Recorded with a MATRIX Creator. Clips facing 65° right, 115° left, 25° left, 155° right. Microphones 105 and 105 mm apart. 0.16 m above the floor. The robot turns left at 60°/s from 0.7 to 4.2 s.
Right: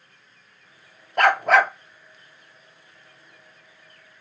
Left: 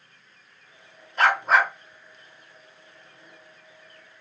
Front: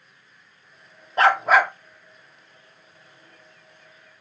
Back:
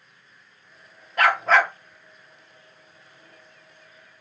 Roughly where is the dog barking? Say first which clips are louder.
Right 3 dB, front 2 dB; ahead right.